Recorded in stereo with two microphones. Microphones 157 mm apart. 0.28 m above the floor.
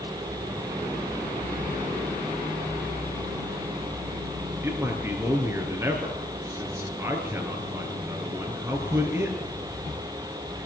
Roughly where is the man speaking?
Centre.